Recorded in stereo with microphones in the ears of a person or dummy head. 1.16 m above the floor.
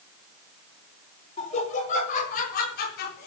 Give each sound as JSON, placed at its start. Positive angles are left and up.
{"t": 1.4, "sound": "laughter", "side_deg": 40, "distance_m": 4.5}